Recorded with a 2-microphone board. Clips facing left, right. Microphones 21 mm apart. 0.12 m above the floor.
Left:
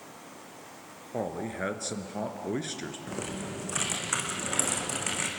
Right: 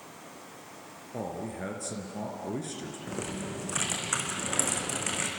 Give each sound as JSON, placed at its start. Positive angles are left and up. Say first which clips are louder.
{"t": 1.1, "sound": "a man speaking", "louder": "left 3 dB", "side_deg": 35, "distance_m": 1.8}
{"t": 3.1, "sound": "typing on a keyboard", "louder": "right 2 dB", "side_deg": 0, "distance_m": 3.5}